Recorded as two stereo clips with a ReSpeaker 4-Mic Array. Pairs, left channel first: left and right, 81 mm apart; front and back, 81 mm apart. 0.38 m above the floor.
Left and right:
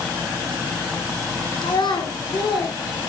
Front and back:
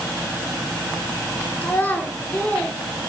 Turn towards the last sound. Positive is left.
turn(degrees=70)